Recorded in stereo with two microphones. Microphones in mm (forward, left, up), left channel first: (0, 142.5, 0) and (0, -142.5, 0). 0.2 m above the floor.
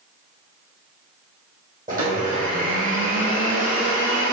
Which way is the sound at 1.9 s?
30° right (ahead or behind).